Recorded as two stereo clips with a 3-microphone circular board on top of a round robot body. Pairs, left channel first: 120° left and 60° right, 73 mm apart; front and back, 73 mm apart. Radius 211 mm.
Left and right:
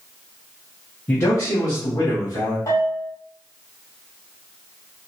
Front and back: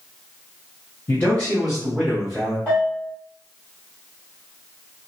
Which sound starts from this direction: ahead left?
A man speaking, at 1.1 s.